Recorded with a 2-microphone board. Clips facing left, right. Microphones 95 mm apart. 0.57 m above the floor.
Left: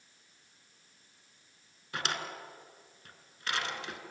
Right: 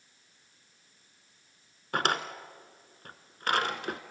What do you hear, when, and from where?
1.9 s a drawer: 50° right (ahead or behind), 1.5 m